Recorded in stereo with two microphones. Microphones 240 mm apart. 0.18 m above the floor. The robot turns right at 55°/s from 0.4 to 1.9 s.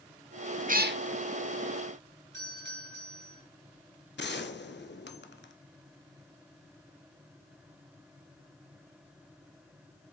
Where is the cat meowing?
30° right (ahead or behind), 0.6 m; by 1.0 s 45° right (ahead or behind), 0.6 m.